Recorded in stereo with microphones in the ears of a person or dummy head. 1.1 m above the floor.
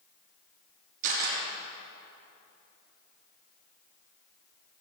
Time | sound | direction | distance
1.0 | a camera shutter | 50° right (ahead or behind) | 5.5 m